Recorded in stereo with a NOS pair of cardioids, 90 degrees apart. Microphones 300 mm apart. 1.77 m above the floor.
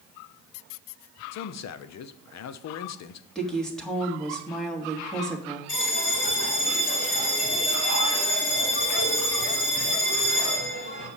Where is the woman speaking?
Straight ahead, 3 m.